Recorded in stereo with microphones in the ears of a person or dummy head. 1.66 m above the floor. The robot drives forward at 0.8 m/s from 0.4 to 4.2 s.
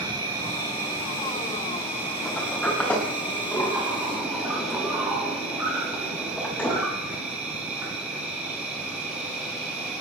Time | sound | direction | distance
0.0 | an insect | 15° right (ahead or behind) | 3 m
2.2 | a sliding door | 10° left (ahead or behind) | 3 m